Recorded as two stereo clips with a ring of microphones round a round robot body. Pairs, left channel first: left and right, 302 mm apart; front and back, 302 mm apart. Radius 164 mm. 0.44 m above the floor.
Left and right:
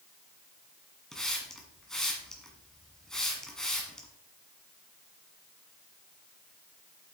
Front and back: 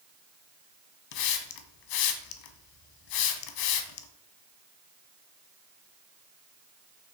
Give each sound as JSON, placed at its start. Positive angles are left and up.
{"t": 1.1, "sound": "a hiss", "azimuth_deg": 0, "distance_m": 1.0}